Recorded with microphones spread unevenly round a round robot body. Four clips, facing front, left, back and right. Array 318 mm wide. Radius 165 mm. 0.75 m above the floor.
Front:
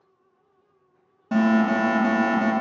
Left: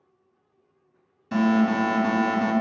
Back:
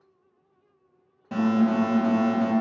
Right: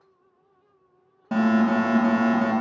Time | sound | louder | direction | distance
1.3 | an alarm | right 1 dB, front 2 dB | 60° right | 2.5 m